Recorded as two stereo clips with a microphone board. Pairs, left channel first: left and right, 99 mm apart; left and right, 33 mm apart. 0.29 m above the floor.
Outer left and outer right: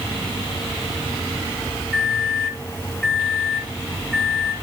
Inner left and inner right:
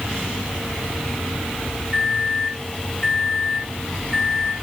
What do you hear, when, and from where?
1.9 s a microwave: centre (ahead or behind), 1.0 m